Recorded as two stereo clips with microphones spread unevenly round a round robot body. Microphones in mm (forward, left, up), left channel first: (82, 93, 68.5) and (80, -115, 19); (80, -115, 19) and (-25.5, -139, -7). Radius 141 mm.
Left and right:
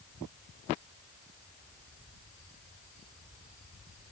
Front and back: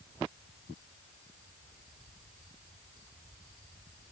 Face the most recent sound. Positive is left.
No sound to turn to.